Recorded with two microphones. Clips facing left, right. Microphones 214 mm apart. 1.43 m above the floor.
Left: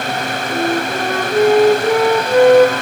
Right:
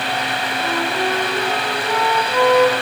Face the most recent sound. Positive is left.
turn(degrees=65)  # may be behind; listen again after turning